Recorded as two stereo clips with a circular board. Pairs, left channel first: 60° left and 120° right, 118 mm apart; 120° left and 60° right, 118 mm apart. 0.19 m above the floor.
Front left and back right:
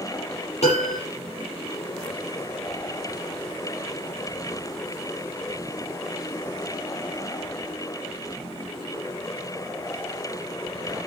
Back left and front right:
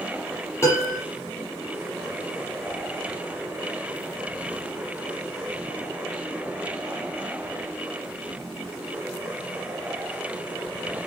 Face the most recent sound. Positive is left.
turn(degrees=55)